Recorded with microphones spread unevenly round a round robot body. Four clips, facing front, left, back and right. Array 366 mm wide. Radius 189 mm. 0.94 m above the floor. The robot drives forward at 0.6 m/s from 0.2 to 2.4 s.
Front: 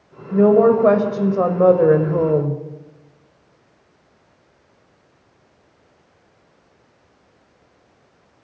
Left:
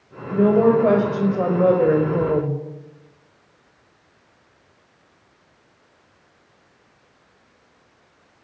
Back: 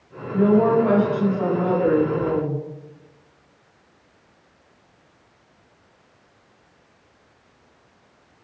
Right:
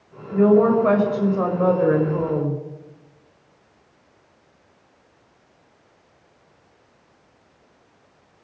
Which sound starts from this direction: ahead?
A woman speaking, at 0.3 s.